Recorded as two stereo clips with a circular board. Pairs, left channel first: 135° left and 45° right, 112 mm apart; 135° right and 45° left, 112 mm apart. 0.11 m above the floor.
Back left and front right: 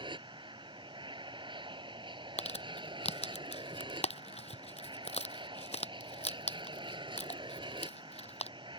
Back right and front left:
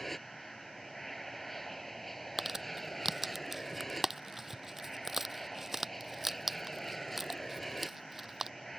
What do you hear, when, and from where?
0.0 s an aircraft: 45° right
2.4 s crumpling: 130° left